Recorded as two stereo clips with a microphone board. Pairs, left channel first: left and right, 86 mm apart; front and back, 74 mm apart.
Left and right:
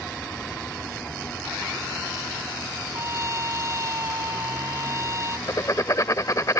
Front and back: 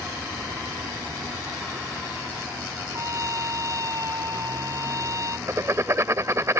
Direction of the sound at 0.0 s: 170° left.